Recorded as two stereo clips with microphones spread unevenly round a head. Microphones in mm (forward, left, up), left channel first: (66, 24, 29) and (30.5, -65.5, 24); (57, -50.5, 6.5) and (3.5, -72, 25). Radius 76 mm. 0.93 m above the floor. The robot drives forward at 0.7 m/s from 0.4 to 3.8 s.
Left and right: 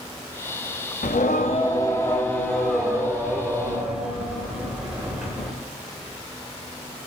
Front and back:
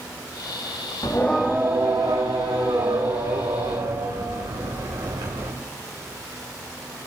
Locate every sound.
1.0 s singing: 90° left, 0.5 m; by 5.5 s 165° left, 2 m